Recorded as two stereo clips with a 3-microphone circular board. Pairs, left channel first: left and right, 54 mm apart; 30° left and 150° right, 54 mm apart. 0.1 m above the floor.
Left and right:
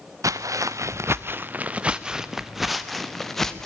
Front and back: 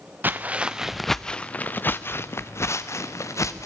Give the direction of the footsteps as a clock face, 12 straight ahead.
3 o'clock.